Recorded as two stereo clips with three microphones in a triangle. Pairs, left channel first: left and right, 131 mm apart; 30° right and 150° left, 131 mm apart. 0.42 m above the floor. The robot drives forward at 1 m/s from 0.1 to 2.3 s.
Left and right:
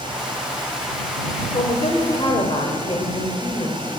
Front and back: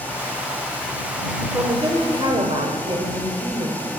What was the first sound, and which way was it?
A woman speaking, 85° left.